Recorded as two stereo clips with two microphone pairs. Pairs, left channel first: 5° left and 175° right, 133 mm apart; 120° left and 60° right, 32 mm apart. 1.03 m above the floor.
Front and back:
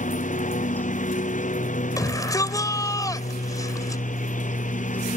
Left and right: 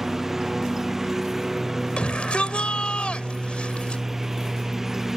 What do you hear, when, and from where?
0.0 s a lawn mower: 20° left
2.0 s a shout: 70° left